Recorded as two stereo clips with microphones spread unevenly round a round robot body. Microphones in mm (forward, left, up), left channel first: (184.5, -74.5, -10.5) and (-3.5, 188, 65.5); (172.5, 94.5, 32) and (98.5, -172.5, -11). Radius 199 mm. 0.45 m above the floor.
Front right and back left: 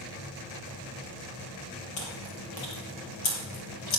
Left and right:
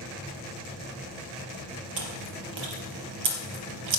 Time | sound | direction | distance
2.0 | chewing | 105° right | 3.5 m